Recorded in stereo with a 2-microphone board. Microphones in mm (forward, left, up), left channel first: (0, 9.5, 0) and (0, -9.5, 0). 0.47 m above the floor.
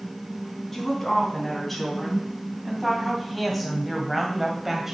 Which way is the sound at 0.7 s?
10° left (ahead or behind).